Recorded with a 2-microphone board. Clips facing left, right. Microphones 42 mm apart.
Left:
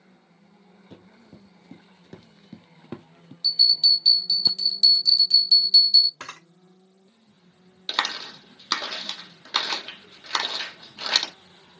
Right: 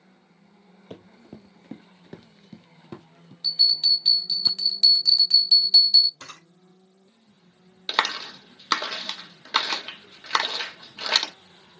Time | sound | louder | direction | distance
0.9 | running footsteps | right 6 dB | 60° right (ahead or behind) | 1.2 m
3.4 | a bell | left 2 dB | 30° right (ahead or behind) | 2.5 m
6.2 | a camera shutter | left 4 dB | 55° left (ahead or behind) | 1.4 m
7.9 | a clap | right 2 dB | 20° right (ahead or behind) | 1.3 m